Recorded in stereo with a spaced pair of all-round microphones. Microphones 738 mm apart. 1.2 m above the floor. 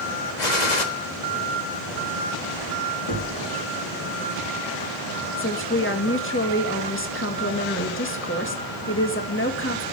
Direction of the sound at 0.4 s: 75° left (ahead or behind).